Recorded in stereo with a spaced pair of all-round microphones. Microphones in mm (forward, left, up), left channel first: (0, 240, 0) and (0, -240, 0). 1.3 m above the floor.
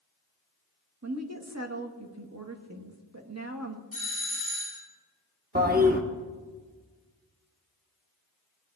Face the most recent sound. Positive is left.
turn(degrees=-20)  # may be behind; listen again after turning